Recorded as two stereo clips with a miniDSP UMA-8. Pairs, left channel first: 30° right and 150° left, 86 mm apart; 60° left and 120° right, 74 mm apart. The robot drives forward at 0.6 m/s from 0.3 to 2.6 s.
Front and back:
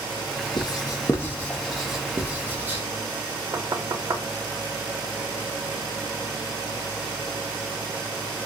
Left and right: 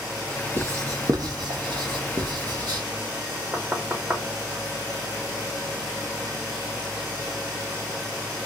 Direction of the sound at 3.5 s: Straight behind.